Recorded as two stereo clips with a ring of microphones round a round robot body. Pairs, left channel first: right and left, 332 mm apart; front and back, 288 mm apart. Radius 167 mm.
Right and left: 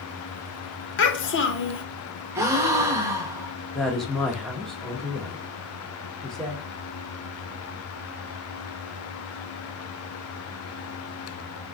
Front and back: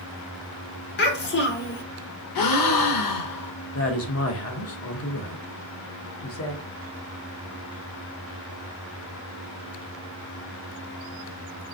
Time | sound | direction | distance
1.0 | a child speaking | 45° right | 0.8 m
2.4 | a gasp | 10° left | 0.8 m
3.7 | a woman speaking | straight ahead | 1.0 m